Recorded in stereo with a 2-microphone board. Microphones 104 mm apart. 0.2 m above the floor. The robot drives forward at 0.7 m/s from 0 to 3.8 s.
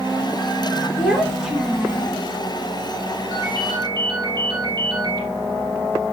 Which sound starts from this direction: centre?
A child speaking, at 1.0 s.